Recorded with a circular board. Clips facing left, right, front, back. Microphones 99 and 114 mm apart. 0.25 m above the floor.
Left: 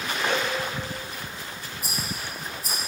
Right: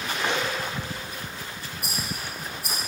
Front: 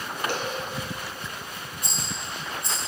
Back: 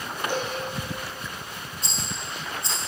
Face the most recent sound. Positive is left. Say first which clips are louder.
# even, even
turn(degrees=-110)